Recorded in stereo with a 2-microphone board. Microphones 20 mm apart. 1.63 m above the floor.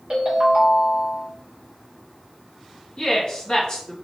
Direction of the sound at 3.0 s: 40° left (ahead or behind).